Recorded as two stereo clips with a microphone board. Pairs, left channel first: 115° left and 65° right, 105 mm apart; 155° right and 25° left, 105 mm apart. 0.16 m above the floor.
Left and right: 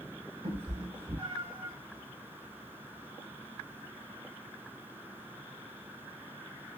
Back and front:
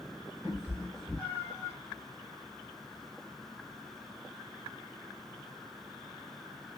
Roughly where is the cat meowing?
Ahead right.